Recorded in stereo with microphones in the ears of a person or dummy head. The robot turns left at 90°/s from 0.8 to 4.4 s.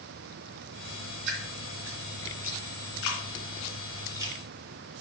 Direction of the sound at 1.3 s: 60° right (ahead or behind).